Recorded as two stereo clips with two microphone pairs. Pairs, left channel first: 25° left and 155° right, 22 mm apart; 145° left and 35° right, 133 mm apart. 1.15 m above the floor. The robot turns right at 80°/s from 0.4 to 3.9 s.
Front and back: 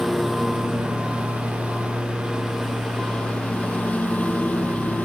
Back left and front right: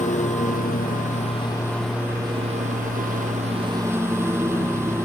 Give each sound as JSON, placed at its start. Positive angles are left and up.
{"t": 0.0, "sound": "a lawn mower", "azimuth_deg": 115}